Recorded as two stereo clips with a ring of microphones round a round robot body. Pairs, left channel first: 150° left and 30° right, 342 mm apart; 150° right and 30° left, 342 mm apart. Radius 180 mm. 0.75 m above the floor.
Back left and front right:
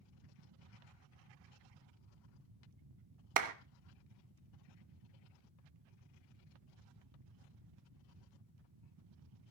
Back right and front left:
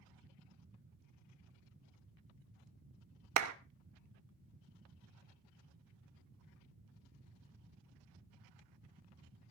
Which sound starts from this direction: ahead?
A clap, at 3.4 s.